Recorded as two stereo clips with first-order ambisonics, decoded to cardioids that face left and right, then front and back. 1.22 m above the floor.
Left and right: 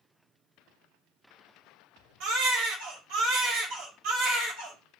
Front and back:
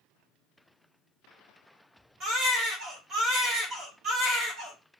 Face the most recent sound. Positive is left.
turn(degrees=-125)